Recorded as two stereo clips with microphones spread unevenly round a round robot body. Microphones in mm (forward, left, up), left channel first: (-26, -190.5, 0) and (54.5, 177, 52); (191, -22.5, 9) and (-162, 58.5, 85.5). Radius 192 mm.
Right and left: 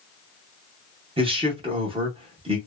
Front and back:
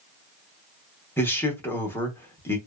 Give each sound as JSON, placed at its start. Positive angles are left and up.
{"t": 1.2, "sound": "a man speaking", "azimuth_deg": 5, "distance_m": 0.7}